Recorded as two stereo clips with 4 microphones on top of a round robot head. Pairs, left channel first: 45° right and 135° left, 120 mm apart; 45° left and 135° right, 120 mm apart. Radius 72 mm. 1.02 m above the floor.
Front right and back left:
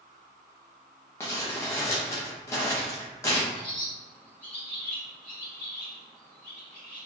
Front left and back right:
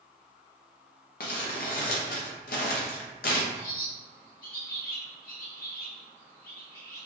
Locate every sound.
1.2 s crumpling: 25° left, 0.5 m
3.5 s a bird: 30° left, 1.5 m